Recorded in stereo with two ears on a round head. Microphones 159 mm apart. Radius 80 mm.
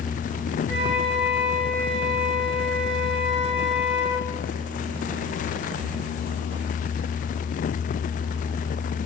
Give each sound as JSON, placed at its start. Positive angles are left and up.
{"t": 0.7, "sound": "a flute", "side_deg": -65, "distance_m": 3.0}